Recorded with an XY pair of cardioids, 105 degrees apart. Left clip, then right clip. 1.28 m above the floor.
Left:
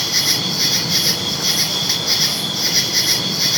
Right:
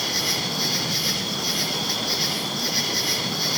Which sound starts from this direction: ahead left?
An insect, at 0.0 s.